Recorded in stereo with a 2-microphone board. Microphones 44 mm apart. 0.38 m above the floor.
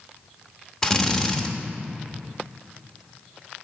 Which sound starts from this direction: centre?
A drill, at 0.8 s.